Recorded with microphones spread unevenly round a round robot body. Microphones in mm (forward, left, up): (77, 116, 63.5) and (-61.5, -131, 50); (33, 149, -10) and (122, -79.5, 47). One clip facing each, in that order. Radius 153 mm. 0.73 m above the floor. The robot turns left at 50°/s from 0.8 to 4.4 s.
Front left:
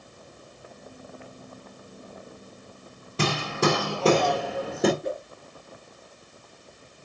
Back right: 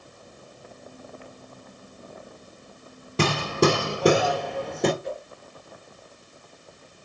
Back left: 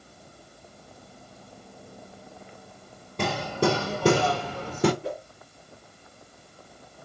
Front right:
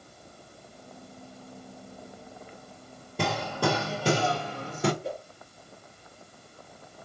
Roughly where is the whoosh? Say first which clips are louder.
Front left 2 dB, back left 2 dB; left.